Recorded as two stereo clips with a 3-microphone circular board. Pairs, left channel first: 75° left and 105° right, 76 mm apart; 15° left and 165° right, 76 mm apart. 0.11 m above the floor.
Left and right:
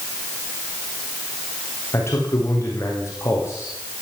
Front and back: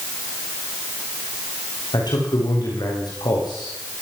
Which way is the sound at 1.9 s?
25° left.